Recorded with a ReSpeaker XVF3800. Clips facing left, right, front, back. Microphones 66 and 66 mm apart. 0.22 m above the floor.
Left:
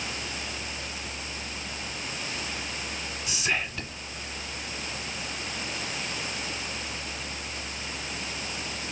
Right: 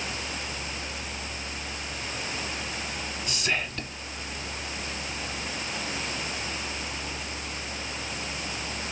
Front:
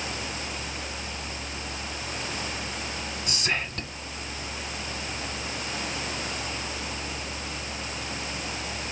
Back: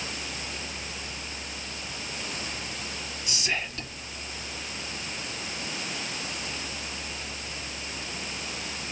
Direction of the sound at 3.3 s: 15° left.